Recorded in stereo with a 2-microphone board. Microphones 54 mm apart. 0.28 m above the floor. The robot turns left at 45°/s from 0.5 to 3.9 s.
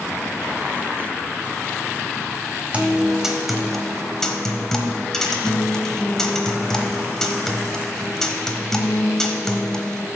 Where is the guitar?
145° right, 0.8 m; by 10.1 s 165° left, 0.8 m.